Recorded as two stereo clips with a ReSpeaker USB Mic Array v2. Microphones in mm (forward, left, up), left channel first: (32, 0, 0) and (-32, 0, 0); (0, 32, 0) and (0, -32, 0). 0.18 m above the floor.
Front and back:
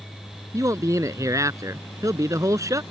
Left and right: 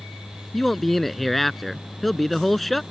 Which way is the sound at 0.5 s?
175° left.